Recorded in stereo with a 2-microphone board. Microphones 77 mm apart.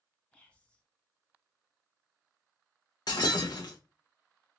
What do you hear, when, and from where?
0.3 s whispering: 15° left (ahead or behind), 1.6 m
3.1 s breaking glass: 65° left (ahead or behind), 1.0 m